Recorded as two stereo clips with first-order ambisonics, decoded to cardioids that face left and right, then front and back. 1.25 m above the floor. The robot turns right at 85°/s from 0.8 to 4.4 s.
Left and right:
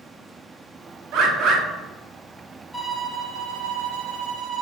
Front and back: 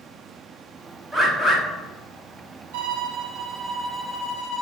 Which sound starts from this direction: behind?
A violin, at 2.7 s.